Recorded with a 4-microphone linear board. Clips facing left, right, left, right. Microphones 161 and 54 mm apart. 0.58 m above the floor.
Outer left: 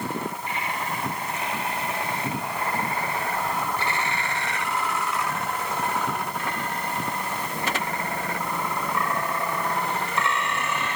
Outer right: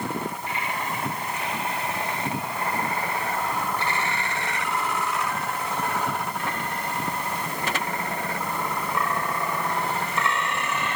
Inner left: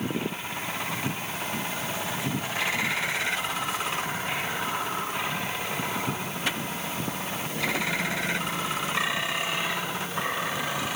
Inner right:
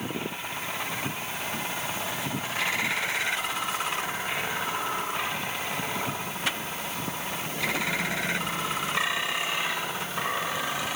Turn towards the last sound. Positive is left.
No sound to turn to.